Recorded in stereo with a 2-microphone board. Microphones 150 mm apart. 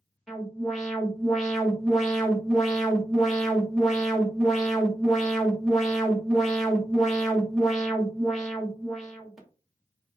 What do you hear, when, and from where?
0.3 s an alarm: centre (ahead or behind), 1.4 m